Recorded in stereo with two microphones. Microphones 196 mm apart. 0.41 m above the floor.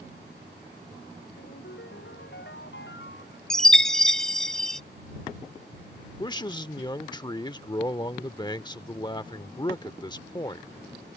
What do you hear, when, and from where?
1.4 s a ringtone: 75° left (ahead or behind)
3.5 s a chime: centre (ahead or behind)
6.2 s a man speaking: 20° left (ahead or behind)